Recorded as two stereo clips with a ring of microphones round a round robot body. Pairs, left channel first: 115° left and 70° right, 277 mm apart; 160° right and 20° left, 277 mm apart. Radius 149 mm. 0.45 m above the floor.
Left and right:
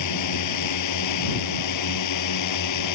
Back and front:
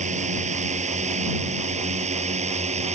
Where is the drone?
90° left.